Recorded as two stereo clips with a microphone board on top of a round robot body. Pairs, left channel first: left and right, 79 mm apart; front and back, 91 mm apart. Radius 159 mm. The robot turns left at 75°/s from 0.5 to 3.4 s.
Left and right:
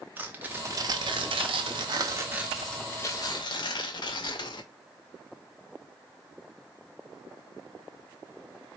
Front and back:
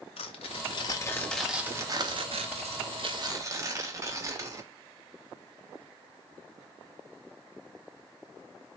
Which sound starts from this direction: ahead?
Tearing paper, at 0.2 s.